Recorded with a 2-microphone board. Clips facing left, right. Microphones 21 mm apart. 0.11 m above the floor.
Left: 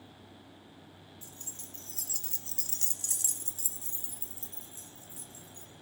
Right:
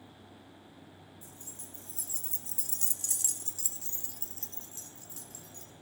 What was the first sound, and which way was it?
Keys jangling, 55° left (ahead or behind).